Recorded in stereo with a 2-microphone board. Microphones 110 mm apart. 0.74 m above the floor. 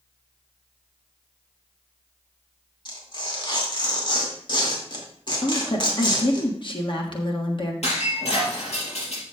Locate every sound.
2.9 s tearing paper: 45° left (ahead or behind), 2 m
5.4 s a woman speaking: 50° left (ahead or behind), 1.4 m
7.8 s breaking glass: 70° left (ahead or behind), 4.5 m